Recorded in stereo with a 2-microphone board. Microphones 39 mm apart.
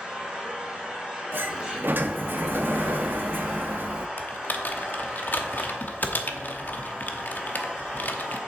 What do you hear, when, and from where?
0.0 s an engine running: 15° right (ahead or behind), 3.5 m
1.3 s a sliding door: 60° right (ahead or behind), 0.7 m
4.2 s typing on a keyboard: 50° left (ahead or behind), 0.9 m